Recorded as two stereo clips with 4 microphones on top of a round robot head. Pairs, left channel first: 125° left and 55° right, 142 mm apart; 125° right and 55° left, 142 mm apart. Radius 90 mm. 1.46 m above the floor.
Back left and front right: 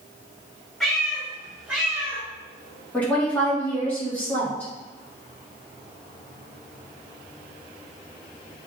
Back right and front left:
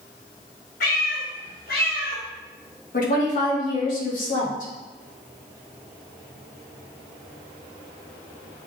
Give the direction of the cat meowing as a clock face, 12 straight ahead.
5 o'clock.